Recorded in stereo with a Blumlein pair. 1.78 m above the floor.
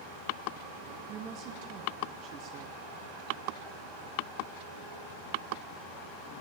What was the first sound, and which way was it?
A woman speaking, 35° right.